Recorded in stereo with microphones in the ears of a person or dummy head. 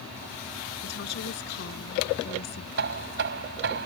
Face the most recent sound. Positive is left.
turn(degrees=-60)  # may be behind; listen again after turning